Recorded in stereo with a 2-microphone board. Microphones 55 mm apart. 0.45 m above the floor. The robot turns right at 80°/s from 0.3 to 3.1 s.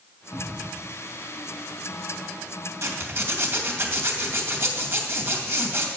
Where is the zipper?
65° right (ahead or behind), 2 m; by 5.9 s 50° right (ahead or behind), 2 m.